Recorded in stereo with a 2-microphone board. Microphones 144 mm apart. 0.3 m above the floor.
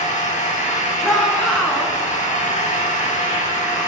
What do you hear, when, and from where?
0.0 s an engine running: 60° left (ahead or behind), 5 m
1.0 s a shout: centre (ahead or behind), 3.5 m